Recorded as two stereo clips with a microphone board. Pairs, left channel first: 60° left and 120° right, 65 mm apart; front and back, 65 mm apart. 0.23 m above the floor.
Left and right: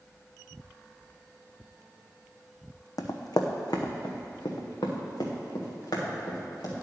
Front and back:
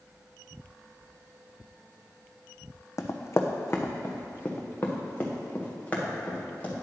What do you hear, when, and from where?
3.0 s running footsteps: 35° left, 0.8 m; by 6.7 s 65° left, 2.5 m